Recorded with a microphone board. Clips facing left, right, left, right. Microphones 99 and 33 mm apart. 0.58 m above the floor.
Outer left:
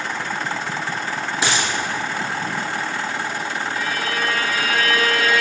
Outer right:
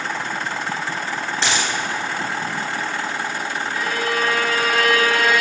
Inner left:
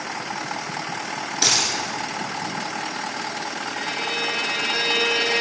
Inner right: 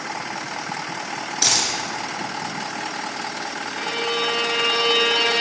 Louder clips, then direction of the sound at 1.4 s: Outer left 1 dB, inner left 1 dB; 10° left (ahead or behind).